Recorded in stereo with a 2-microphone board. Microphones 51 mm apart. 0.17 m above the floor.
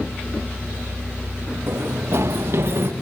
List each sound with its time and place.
1.7 s running footsteps: 65° right (ahead or behind), 6.5 m